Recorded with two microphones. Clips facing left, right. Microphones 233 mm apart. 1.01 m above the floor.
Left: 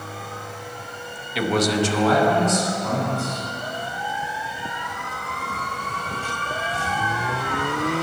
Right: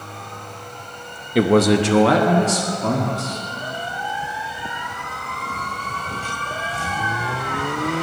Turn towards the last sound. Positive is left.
turn(degrees=-85)